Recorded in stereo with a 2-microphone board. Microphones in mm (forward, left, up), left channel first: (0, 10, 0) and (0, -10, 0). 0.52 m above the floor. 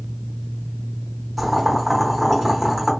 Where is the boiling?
5° left (ahead or behind), 1.1 m.